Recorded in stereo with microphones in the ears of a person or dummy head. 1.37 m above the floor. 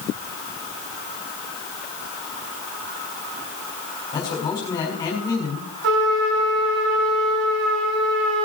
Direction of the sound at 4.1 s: 15° left (ahead or behind).